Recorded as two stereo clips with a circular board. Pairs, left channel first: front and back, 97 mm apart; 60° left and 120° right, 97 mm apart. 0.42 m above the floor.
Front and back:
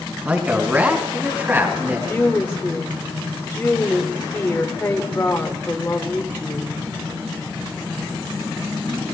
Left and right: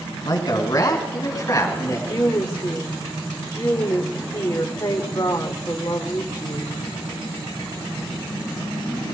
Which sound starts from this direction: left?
A man speaking, at 0.2 s.